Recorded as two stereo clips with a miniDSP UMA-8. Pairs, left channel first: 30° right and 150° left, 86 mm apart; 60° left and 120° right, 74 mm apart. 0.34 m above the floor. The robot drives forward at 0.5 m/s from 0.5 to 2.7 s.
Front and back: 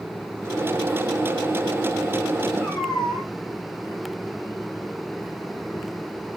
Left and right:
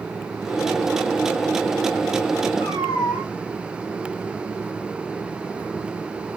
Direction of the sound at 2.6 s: 45° left.